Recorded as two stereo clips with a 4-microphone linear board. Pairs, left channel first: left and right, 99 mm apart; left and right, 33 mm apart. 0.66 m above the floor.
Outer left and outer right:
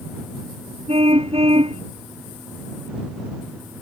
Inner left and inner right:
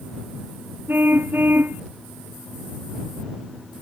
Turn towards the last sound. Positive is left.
turn(degrees=-80)